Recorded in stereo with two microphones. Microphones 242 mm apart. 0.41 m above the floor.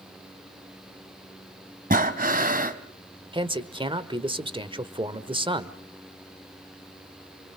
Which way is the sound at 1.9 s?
35° right (ahead or behind).